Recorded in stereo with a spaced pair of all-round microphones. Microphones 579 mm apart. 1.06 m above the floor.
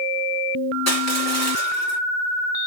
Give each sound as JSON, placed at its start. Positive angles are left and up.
{"t": 0.9, "sound": "crushing", "side_deg": 25, "distance_m": 2.5}